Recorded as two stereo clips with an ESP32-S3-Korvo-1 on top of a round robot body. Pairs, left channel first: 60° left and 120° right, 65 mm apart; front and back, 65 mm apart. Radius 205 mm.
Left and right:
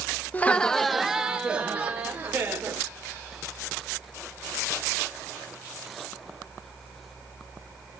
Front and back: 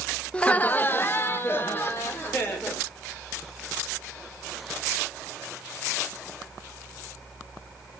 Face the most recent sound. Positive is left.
turn(degrees=-55)